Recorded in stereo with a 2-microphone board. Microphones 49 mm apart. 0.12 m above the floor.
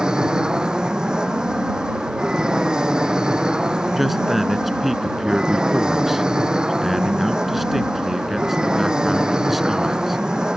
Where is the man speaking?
5° right (ahead or behind).